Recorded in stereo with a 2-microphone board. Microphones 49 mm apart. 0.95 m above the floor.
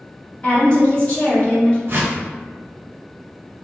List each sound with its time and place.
0.4 s a woman speaking: 25° left (ahead or behind), 1.6 m
1.9 s a whoosh: 50° right (ahead or behind), 0.6 m